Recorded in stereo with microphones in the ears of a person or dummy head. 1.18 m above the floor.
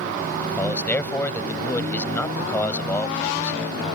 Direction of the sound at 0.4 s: 15° left (ahead or behind).